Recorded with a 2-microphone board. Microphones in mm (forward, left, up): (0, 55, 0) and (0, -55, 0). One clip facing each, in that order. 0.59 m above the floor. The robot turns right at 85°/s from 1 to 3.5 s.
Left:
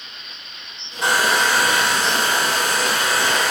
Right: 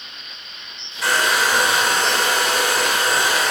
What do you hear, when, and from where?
1.0 s a hair dryer: 155° left, 1.3 m; by 3.5 s 5° left, 1.3 m